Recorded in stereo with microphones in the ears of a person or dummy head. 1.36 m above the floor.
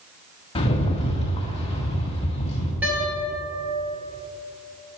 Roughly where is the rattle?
Left.